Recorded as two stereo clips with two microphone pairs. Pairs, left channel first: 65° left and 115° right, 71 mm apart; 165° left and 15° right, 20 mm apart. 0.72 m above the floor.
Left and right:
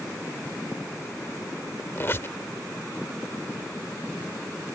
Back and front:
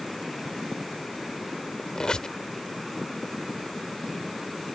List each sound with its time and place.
1.9 s a squeak: 120° left